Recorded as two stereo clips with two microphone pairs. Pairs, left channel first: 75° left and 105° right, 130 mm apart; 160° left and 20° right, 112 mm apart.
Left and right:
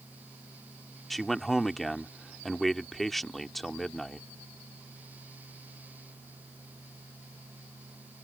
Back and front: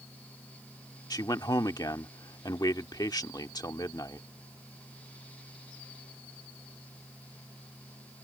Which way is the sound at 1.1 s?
165° left.